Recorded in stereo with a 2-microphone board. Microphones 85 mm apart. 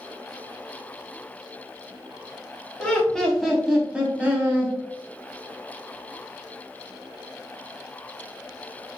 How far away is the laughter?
About 1.2 m.